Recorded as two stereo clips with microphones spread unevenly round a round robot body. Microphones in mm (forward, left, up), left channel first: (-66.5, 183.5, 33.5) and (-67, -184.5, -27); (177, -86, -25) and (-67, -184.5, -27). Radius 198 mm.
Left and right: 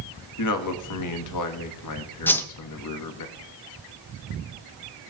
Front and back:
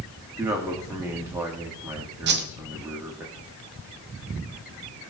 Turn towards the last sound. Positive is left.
turn(degrees=-175)